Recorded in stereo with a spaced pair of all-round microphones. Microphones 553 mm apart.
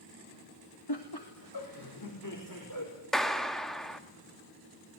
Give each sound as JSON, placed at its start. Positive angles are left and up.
{"t": 0.9, "sound": "laughter", "side_deg": 45, "distance_m": 2.0}
{"t": 3.1, "sound": "a clap", "side_deg": 0, "distance_m": 1.5}